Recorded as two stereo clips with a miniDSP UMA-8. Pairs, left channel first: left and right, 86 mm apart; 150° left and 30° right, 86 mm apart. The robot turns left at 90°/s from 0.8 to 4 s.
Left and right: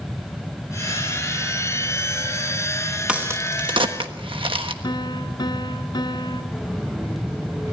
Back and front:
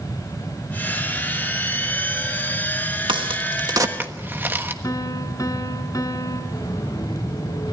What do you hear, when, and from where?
3.1 s a crack: 15° right, 1.3 m; by 4.7 s 95° right, 1.3 m
4.8 s a piano: 110° left, 2.0 m
6.5 s footsteps: 170° right, 6 m; by 7.7 s 155° right, 6.5 m